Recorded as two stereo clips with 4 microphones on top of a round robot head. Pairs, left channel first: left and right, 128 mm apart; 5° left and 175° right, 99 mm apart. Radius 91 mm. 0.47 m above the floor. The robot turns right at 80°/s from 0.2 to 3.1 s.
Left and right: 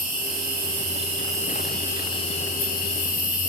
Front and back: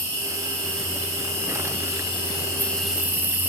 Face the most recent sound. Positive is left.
turn(degrees=115)